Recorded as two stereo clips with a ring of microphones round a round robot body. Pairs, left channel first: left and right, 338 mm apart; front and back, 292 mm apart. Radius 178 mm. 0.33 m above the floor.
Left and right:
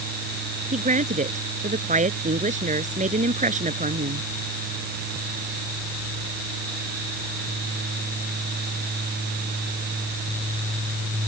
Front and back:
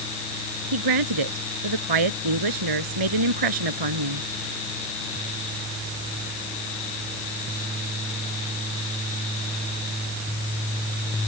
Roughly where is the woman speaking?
Behind.